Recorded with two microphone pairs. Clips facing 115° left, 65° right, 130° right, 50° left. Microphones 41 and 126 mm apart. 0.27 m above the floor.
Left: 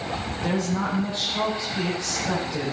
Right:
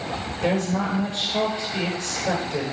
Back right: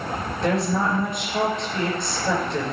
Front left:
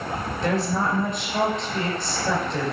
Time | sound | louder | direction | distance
0.4 | a woman speaking | right 3 dB, back right 2 dB | 40° right | 5 m